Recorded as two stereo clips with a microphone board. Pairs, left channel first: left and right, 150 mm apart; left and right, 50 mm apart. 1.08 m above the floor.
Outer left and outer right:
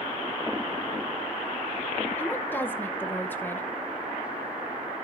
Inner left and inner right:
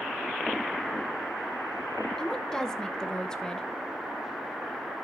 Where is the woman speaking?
15° left (ahead or behind), 0.7 m.